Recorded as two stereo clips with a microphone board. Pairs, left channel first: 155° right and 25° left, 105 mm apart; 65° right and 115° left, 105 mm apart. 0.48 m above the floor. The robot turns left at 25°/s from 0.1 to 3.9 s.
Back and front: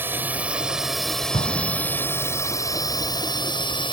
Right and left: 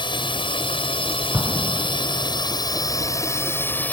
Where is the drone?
40° right; by 3.9 s 135° right.